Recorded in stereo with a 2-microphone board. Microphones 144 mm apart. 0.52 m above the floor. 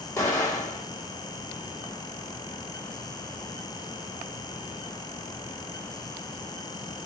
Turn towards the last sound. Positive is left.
turn(degrees=20)  # may be behind; listen again after turning